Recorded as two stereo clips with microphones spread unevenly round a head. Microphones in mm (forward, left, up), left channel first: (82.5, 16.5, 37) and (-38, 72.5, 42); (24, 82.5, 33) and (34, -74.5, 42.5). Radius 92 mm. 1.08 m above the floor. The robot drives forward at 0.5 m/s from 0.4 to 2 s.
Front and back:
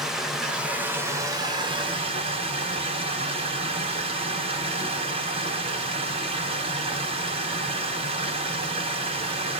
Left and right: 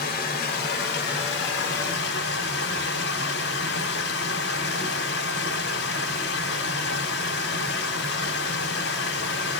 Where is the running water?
70° left, 1.2 m; by 9.6 s 105° left, 1.2 m.